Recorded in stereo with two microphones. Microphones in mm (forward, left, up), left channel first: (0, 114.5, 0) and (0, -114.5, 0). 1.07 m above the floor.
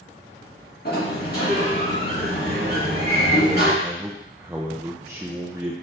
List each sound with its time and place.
0.8 s a sliding door: 45° left (ahead or behind), 2.0 m
3.8 s a man speaking: 10° right (ahead or behind), 0.5 m